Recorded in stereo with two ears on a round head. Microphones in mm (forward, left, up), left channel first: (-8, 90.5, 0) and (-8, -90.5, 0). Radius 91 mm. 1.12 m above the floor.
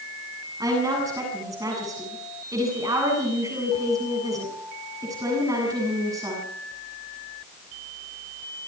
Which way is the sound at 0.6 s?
15° right (ahead or behind).